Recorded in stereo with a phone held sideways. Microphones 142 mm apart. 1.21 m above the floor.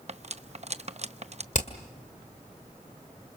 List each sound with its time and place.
0.1 s cutlery clinking: 50° right (ahead or behind), 0.7 m
1.5 s hammering: 65° left (ahead or behind), 1.8 m